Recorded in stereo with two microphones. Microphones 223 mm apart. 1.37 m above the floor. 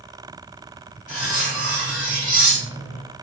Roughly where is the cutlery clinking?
Left.